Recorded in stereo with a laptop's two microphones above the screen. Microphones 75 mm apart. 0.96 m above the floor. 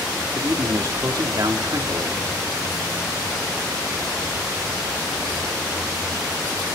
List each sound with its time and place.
0.3 s a man speaking: 60° right (ahead or behind), 2.5 m